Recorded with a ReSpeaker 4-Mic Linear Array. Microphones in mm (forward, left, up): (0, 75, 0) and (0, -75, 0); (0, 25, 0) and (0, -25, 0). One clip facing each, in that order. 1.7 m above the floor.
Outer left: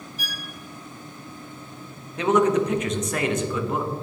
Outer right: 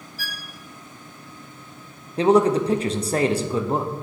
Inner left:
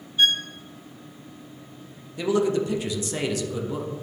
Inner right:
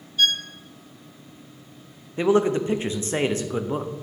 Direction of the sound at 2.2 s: 35° right (ahead or behind).